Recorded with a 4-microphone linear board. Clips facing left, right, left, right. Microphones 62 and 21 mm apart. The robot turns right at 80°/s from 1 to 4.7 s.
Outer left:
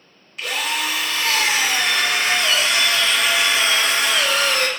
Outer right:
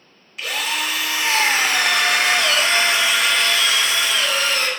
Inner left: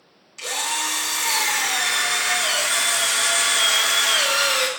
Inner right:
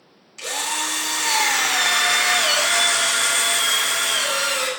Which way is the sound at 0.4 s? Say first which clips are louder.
Even, even; straight behind.